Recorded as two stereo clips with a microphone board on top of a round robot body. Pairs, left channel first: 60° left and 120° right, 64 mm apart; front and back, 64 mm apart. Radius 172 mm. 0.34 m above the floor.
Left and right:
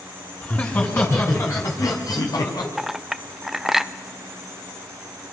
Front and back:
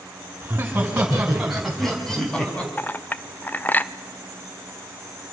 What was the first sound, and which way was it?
Laughter, 120° left.